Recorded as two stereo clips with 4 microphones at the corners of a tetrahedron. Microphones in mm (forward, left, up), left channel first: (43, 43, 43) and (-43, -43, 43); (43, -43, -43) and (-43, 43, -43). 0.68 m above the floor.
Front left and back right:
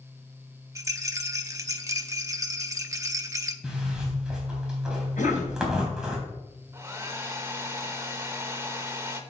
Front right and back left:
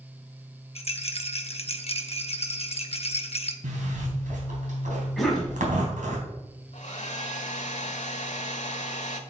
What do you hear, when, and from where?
0.8 s a rattle: 70° right, 0.8 m
3.6 s a zipper: 140° left, 3.5 m
5.2 s a cough: 45° left, 4 m
6.7 s a hair dryer: 65° right, 1.2 m